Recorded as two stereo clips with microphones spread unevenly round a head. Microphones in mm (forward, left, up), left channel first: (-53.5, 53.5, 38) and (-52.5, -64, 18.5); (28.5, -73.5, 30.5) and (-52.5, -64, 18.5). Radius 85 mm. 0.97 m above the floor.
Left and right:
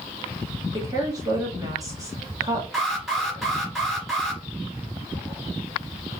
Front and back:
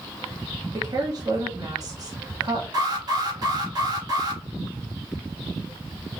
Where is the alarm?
175° right, 2.5 m.